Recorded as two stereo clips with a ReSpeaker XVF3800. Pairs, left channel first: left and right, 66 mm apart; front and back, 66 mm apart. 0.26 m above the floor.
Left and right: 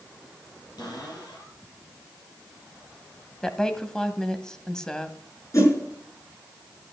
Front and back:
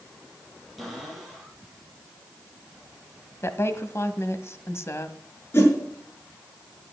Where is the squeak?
No squeak in this recording.